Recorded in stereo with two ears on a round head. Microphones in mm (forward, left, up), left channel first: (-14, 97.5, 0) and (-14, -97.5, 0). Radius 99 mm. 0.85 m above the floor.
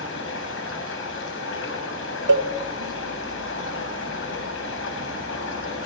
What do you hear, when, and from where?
0.0 s running water: 55° left (ahead or behind), 5 m
2.3 s a cowbell: 60° right (ahead or behind), 2 m